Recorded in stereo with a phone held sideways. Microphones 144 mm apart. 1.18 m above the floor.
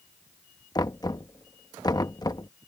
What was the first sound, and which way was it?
Knocking, 25° left (ahead or behind).